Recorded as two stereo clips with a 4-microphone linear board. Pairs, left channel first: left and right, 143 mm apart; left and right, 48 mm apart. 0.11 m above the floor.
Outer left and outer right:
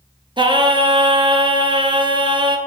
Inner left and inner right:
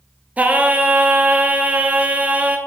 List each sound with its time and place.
0.4 s singing: 30° right (ahead or behind), 0.7 m